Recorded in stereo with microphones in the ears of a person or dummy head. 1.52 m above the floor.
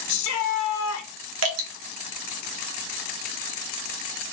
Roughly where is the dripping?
Right.